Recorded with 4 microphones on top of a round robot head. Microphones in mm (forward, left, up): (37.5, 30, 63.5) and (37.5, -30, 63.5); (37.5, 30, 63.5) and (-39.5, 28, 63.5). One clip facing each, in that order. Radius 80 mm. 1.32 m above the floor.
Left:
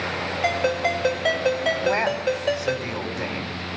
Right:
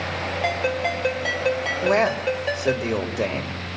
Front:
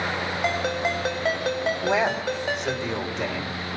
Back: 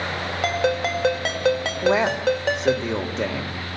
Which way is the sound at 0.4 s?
175° left.